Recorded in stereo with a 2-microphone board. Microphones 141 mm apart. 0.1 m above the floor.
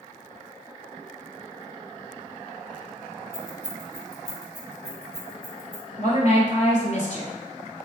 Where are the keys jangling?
20° left (ahead or behind), 0.8 m; by 5.8 s 60° left (ahead or behind), 1.9 m.